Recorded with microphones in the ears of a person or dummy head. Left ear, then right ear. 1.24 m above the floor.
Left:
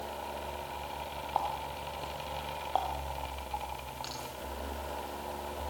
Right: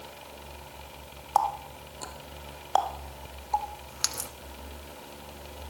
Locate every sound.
1.4 s a running tap: 60° right (ahead or behind), 1.4 m